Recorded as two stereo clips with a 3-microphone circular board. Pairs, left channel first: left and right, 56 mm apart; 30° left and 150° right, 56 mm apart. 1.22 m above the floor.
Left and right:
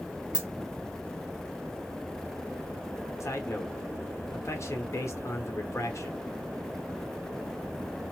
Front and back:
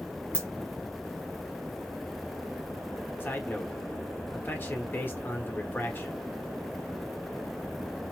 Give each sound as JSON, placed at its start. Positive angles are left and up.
{"t": 0.3, "sound": "a dropped coin", "azimuth_deg": -25, "distance_m": 1.1}
{"t": 3.2, "sound": "a man speaking", "azimuth_deg": 80, "distance_m": 1.1}